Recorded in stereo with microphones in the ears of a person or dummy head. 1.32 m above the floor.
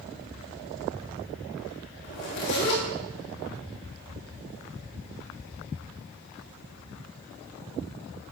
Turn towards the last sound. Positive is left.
turn(degrees=65)  # may be behind; listen again after turning